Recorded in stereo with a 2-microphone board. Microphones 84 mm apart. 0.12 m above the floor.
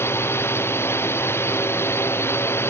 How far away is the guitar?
No guitar in this recording.